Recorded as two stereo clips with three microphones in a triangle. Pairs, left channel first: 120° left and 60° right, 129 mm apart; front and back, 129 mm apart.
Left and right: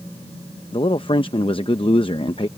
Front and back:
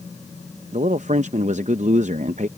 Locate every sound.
0.7 s a man speaking: 165° left